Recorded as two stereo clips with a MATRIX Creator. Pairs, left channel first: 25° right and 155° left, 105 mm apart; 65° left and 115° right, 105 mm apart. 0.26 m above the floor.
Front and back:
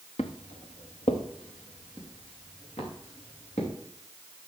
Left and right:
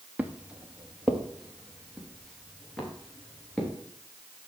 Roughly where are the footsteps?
Ahead right.